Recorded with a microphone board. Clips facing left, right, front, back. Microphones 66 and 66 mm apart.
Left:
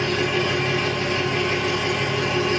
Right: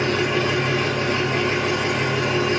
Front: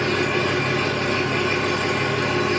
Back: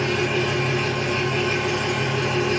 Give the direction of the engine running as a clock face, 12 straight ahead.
1 o'clock.